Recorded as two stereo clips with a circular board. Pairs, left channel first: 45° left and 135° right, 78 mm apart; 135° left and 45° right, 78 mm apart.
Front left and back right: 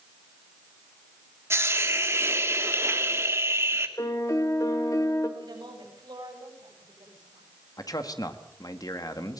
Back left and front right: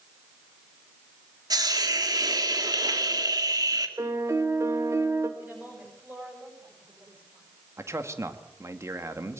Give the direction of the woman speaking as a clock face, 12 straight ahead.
4 o'clock.